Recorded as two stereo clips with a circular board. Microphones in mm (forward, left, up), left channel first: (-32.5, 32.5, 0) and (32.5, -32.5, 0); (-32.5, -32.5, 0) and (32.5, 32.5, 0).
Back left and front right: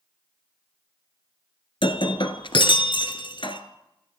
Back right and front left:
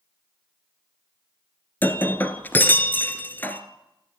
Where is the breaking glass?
155° left, 1.4 m.